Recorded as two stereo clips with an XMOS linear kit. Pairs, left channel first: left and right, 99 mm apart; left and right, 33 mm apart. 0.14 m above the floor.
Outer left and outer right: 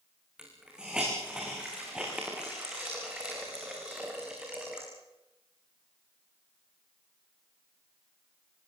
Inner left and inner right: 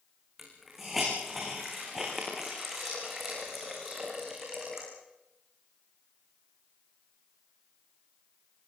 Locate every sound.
0.4 s a hiss: 10° right (ahead or behind), 6.5 m